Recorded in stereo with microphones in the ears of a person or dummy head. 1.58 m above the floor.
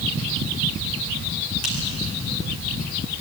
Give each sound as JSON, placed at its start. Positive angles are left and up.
{"t": 1.6, "sound": "a finger snap", "side_deg": 50, "distance_m": 4.5}